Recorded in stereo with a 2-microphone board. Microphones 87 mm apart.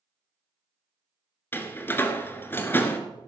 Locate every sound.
1.5 s a door slam: 25° left (ahead or behind), 1.5 m